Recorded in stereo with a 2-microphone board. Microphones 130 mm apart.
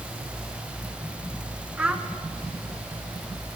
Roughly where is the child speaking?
Centre.